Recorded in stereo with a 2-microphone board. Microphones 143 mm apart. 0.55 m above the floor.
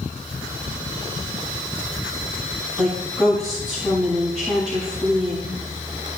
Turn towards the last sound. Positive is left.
turn(degrees=10)  # may be behind; listen again after turning